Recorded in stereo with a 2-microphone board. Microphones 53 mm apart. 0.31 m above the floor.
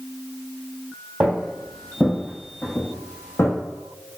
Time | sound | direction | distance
1.2 | footsteps | 15° right (ahead or behind) | 0.7 m